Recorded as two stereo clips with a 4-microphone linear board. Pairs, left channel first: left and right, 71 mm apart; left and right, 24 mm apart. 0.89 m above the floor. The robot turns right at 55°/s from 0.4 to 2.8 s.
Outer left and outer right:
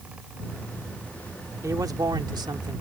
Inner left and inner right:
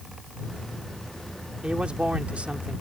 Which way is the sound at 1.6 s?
130° right.